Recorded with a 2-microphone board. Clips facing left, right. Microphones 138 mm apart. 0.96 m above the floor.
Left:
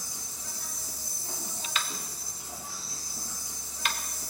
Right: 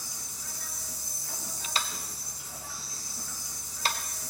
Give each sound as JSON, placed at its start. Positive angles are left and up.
{"t": 0.0, "sound": "an insect", "side_deg": 40, "distance_m": 3.5}
{"t": 1.8, "sound": "tapping", "side_deg": -35, "distance_m": 0.7}